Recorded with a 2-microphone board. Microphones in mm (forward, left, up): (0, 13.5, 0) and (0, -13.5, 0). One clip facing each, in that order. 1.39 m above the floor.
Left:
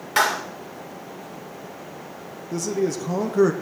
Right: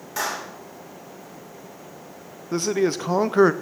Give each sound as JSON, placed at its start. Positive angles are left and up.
{"t": 0.2, "sound": "a clap", "side_deg": 55, "distance_m": 2.0}
{"t": 2.5, "sound": "a man speaking", "side_deg": -45, "distance_m": 0.5}